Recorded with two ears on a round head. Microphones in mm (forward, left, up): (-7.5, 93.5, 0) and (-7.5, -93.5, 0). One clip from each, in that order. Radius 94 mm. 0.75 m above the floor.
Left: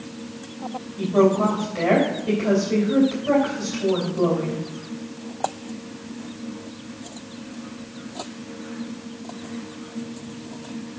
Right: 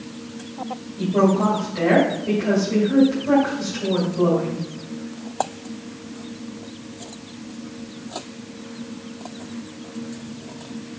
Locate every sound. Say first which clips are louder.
1.0 s a woman speaking: left 1 dB; 35° left (ahead or behind), 3 m